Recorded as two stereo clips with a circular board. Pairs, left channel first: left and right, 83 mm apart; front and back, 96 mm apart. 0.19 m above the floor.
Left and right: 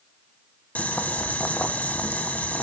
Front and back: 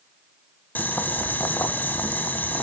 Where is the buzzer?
No buzzer in this recording.